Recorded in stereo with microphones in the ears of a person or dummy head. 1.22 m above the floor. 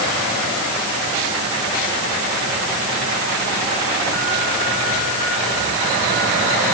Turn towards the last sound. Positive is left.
No sound to turn to.